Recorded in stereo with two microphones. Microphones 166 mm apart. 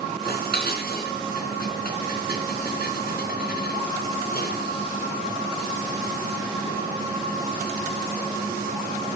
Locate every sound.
0.2 s dishes clattering: 70° left (ahead or behind), 3.5 m